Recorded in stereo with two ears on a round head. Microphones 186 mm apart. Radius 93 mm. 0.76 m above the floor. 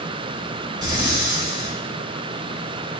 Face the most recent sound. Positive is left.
turn(degrees=-20)  # may be behind; listen again after turning